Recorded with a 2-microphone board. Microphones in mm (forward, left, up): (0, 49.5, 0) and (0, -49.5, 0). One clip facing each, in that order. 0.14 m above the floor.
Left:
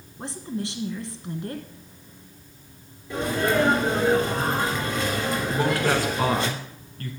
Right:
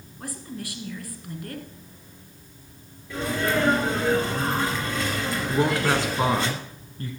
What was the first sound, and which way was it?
A woman speaking, 25° left (ahead or behind).